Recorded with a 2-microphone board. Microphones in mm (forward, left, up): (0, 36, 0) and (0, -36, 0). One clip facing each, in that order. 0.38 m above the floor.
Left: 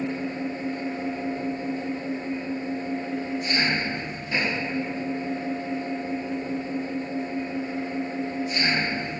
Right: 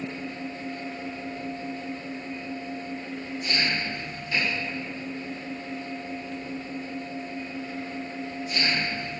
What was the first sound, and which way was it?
An engine running, 25° left (ahead or behind).